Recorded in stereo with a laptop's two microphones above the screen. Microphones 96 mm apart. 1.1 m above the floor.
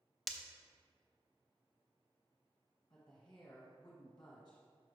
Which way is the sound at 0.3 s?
Centre (ahead or behind).